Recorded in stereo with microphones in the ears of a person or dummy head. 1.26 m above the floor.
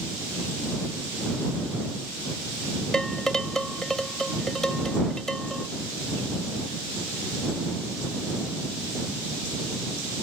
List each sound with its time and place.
2.9 s dishes clattering: 5° left (ahead or behind)